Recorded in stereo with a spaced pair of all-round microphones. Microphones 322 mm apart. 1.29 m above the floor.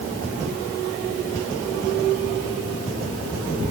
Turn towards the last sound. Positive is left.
No sound to turn to.